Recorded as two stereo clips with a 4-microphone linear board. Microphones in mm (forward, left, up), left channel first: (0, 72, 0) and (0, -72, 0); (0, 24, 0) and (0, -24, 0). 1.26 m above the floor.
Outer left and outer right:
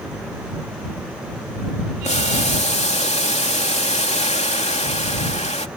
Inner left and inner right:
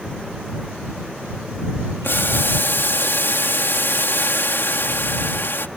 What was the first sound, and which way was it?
Boiling, 55° left (ahead or behind).